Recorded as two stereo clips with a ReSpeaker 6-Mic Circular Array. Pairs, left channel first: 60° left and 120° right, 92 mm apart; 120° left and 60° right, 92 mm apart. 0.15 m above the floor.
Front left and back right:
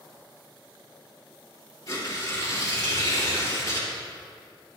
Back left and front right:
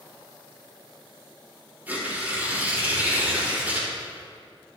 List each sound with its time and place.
1.9 s tearing paper: 10° left, 3.5 m